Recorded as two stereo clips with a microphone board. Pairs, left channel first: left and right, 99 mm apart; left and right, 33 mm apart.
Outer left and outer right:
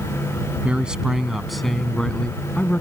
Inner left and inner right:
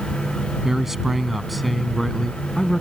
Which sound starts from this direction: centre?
A man speaking, at 0.6 s.